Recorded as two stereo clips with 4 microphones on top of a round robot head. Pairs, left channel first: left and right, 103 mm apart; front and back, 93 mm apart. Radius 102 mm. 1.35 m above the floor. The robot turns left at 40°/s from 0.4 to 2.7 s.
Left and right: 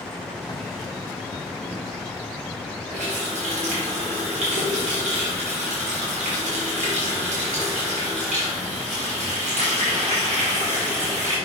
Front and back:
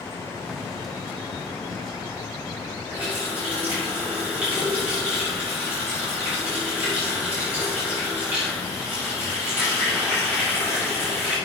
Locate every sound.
2.9 s a running tap: 100° right, 3.5 m